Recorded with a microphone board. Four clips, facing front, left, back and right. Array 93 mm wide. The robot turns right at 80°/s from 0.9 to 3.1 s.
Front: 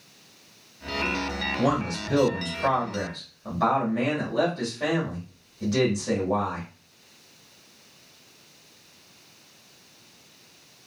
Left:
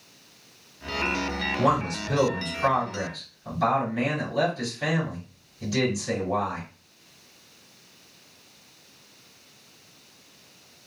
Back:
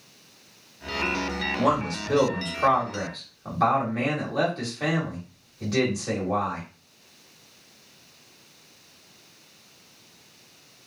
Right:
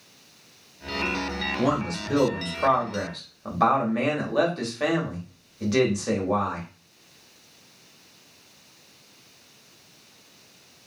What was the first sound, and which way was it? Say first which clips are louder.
A man speaking: left 1 dB, back 1 dB; 140° left.